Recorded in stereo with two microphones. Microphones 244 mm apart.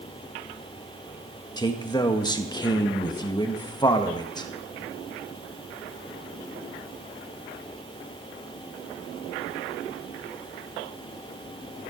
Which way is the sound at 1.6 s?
15° left (ahead or behind).